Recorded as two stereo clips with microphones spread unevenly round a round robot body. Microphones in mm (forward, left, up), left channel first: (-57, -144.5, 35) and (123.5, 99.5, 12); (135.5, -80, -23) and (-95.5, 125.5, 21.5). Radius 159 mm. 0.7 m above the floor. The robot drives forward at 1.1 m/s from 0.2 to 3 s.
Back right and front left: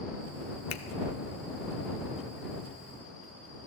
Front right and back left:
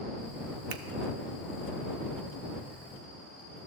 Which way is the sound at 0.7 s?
170° right.